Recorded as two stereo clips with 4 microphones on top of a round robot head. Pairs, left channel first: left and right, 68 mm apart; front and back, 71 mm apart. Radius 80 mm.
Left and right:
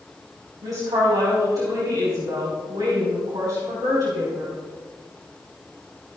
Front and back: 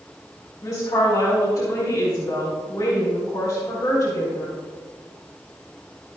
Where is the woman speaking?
55° right, 4.5 m.